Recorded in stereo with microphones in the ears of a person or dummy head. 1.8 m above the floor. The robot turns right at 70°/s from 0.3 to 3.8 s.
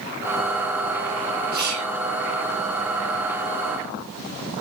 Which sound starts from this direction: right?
Whispering, at 1.5 s.